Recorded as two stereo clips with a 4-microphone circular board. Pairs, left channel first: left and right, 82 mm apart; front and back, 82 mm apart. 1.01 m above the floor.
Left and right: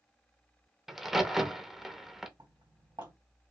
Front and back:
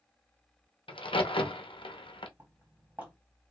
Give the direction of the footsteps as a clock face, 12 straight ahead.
4 o'clock.